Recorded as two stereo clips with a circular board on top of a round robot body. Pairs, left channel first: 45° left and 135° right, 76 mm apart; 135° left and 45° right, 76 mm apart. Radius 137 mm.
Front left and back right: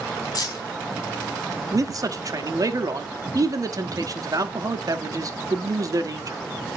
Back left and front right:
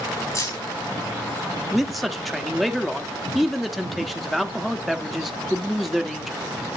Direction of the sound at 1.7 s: 135° right.